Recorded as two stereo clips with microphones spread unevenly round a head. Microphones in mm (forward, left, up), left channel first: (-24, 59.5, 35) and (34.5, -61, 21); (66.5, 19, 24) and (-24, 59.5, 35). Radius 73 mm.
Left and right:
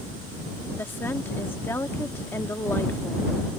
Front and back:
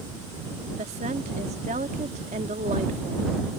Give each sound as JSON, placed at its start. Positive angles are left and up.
{"t": 0.8, "sound": "a woman speaking", "azimuth_deg": -170}